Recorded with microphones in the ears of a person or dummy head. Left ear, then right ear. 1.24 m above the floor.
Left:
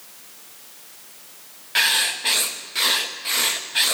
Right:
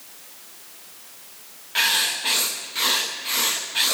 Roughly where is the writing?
Centre.